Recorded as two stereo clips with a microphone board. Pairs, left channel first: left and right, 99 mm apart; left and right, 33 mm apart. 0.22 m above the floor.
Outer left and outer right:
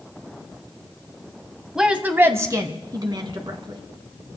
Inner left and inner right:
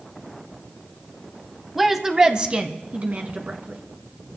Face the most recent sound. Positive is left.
turn(degrees=-55)  # may be behind; listen again after turning